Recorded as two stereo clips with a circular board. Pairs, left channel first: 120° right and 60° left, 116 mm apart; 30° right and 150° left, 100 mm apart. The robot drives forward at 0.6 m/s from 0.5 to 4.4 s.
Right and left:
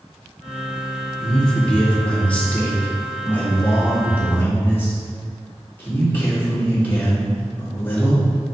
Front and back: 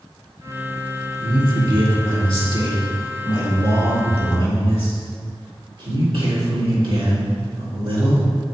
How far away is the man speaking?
About 1.8 m.